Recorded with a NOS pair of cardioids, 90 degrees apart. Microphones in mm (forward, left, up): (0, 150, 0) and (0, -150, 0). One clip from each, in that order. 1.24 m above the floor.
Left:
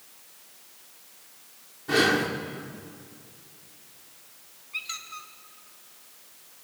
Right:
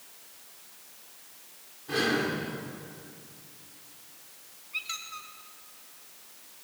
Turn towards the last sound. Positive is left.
turn(degrees=10)